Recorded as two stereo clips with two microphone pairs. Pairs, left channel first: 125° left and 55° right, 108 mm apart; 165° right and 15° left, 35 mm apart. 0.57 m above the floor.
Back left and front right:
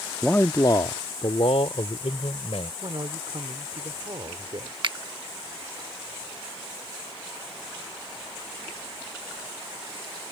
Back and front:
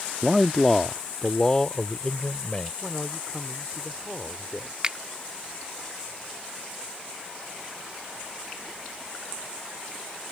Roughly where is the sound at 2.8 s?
Right.